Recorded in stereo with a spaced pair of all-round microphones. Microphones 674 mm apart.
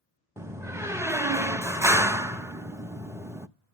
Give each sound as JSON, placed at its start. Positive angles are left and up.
{"t": 0.4, "sound": "a door slam", "side_deg": -5, "distance_m": 0.6}